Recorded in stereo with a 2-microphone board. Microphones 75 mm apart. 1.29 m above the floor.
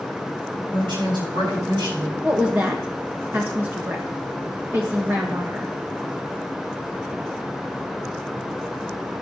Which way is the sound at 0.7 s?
90° right.